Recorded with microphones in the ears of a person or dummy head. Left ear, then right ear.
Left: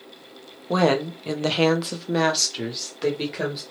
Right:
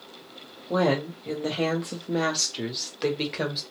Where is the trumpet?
I don't hear a trumpet.